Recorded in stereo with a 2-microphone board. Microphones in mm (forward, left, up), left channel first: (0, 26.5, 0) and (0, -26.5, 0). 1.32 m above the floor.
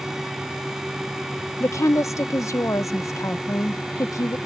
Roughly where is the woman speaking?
Left.